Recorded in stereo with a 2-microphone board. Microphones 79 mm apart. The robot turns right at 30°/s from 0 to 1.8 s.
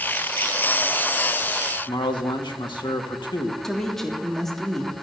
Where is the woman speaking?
5° left (ahead or behind), 3 m.